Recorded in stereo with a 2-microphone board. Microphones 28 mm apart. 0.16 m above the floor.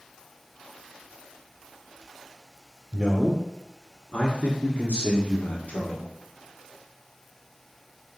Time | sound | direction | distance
2.9 | a man speaking | 20° left (ahead or behind) | 1.8 m